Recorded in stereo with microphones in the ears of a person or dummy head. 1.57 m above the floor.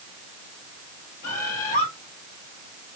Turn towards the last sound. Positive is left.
turn(degrees=45)  # may be behind; listen again after turning